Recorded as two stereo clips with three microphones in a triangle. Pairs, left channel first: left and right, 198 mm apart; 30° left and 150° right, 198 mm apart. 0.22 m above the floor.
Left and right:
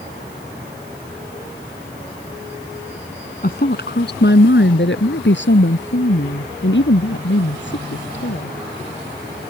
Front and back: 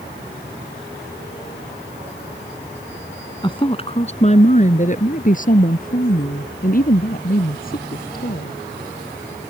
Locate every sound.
3.4 s a woman speaking: 90° left; by 8.6 s 70° left